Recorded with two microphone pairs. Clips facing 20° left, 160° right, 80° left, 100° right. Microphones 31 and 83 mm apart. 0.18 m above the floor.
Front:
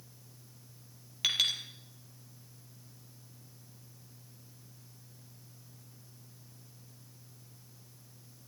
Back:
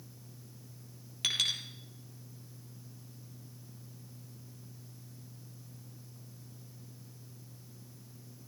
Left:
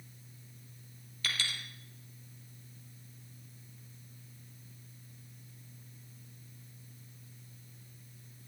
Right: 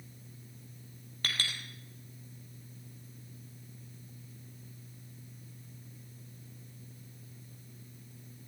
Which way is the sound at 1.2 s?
60° right.